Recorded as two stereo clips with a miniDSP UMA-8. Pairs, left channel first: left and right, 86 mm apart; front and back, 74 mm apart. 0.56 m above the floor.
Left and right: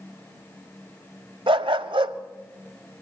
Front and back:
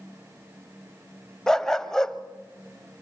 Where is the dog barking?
85° right, 1.0 m.